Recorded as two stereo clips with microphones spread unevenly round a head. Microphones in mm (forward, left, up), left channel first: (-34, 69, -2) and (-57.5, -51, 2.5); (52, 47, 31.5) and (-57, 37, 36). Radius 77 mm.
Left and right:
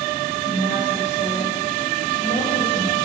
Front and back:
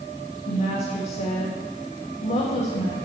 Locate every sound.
0.5 s a woman speaking: 30° left, 1.6 m